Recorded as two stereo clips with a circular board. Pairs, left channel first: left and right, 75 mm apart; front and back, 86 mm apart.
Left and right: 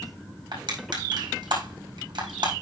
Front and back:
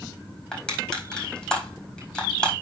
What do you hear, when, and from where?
0.5 s crushing: 80° right, 4.5 m